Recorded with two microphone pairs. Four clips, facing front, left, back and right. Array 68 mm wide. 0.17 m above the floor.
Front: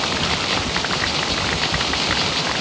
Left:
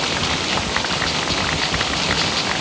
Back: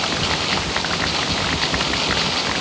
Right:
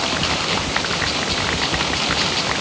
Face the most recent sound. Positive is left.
No sound to turn to.